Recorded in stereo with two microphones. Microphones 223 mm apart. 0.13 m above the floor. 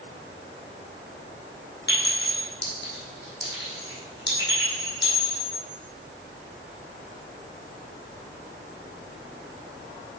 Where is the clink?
50° left (ahead or behind), 3 m.